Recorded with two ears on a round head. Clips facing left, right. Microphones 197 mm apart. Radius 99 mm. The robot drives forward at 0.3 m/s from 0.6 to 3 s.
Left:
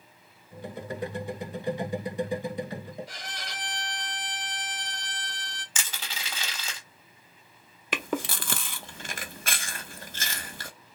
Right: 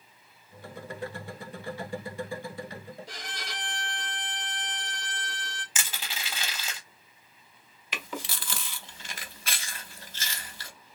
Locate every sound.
3.1 s a violin: 70° right (ahead or behind), 1.9 m
5.8 s crushing: 5° right (ahead or behind), 1.8 m
7.9 s chewing: 45° left (ahead or behind), 0.6 m